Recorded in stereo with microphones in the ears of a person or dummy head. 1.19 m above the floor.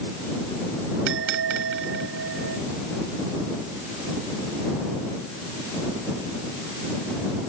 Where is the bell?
65° right (ahead or behind).